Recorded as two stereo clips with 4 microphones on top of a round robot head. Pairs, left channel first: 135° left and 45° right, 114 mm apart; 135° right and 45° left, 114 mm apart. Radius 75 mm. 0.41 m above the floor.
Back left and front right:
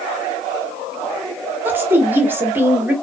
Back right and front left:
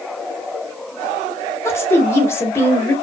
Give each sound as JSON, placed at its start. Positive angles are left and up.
{"t": 1.6, "sound": "a woman speaking", "azimuth_deg": -95, "distance_m": 0.9}